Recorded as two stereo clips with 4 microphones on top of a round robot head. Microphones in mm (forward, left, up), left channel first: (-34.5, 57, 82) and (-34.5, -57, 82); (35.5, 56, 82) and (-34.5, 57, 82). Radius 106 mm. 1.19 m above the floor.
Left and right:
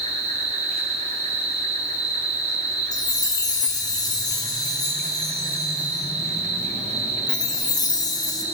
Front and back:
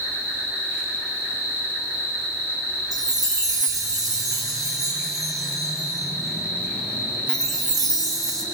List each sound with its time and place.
0.0 s an insect: 115° right, 4 m
2.9 s a chime: 145° left, 2.5 m